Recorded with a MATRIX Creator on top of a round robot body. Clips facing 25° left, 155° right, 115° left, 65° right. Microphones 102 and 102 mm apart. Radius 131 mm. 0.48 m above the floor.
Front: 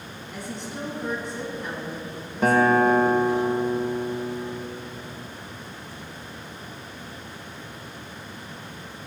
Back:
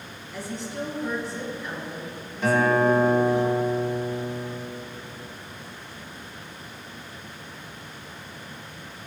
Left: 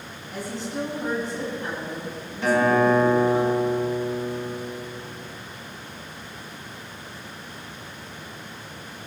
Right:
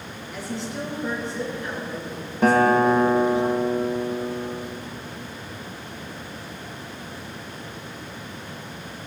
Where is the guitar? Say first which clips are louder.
Front 2 dB, right 2 dB; 20° right, 1.5 m.